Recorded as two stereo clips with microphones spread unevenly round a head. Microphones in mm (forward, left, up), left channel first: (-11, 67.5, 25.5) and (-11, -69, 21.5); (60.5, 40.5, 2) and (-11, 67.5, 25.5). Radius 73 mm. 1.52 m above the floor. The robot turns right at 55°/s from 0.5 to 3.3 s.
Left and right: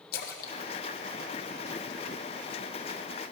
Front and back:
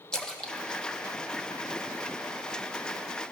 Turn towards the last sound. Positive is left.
turn(degrees=-135)